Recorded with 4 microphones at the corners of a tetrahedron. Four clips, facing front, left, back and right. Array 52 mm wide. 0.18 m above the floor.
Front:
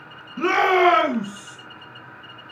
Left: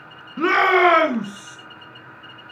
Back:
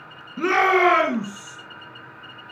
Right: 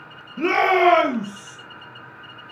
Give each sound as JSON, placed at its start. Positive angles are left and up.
{"t": 0.4, "sound": "a shout", "azimuth_deg": 95, "distance_m": 3.0}